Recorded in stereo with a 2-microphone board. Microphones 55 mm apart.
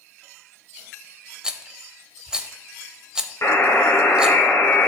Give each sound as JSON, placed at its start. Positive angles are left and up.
{"t": 1.4, "sound": "a rattle", "side_deg": -15, "distance_m": 0.5}
{"t": 3.4, "sound": "a buzzer", "side_deg": 55, "distance_m": 2.0}